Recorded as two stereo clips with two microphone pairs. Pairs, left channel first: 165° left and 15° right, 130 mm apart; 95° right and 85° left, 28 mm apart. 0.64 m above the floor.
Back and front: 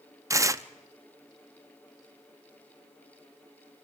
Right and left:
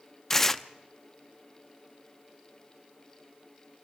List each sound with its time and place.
0.3 s tearing paper: 35° right, 0.5 m